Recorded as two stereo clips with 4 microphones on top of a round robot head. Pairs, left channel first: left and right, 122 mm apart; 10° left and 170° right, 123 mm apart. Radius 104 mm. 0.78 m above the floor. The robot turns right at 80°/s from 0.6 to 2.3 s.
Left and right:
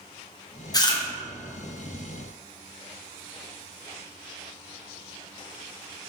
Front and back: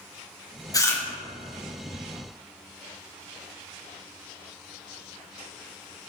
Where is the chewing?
50° left, 1.3 m; by 1.0 s 75° left, 1.3 m.